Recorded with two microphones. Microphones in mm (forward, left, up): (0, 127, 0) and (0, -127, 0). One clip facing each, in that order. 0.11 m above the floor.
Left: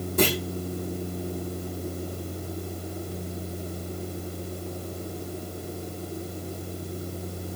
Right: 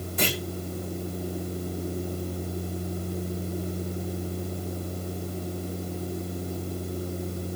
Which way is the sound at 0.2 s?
45° left (ahead or behind).